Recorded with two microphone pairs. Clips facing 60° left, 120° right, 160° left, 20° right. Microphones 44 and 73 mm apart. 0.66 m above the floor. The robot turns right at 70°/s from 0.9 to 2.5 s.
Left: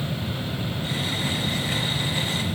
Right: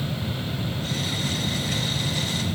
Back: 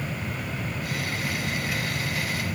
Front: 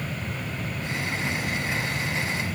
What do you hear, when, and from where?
Only background noise.